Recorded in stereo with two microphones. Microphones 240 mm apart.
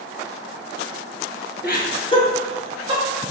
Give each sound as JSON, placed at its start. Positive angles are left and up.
{"t": 1.6, "sound": "laughter", "side_deg": 45, "distance_m": 1.5}